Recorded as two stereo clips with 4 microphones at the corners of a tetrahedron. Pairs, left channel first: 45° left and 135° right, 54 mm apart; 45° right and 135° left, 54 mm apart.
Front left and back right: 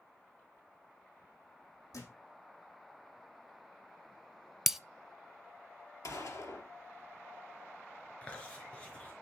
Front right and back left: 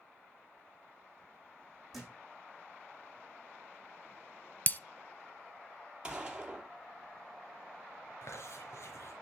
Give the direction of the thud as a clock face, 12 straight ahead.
10 o'clock.